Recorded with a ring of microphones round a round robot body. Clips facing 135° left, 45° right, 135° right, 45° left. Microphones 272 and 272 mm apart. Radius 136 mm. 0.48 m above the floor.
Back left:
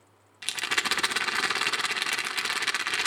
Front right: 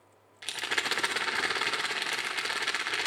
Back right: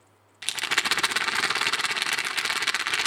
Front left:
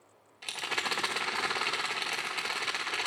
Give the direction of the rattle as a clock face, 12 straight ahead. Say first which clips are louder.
Back left 1 dB, back right 3 dB; 6 o'clock.